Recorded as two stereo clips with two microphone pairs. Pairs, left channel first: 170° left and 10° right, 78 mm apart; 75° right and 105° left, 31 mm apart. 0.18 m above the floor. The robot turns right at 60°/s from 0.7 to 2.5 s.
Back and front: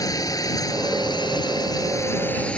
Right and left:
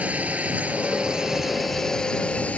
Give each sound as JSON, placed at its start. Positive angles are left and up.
{"t": 0.0, "sound": "a drone", "azimuth_deg": 135}